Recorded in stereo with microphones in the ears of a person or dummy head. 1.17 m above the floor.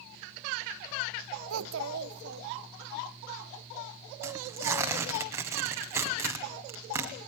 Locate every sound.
1.5 s a child speaking: 80° right, 0.6 m; by 3.0 s 50° right (ahead or behind), 1.3 m
4.2 s tearing paper: 15° right (ahead or behind), 1.8 m